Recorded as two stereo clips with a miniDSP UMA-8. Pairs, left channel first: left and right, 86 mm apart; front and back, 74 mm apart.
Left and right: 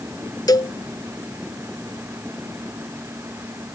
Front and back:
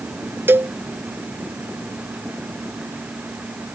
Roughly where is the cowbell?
Behind left.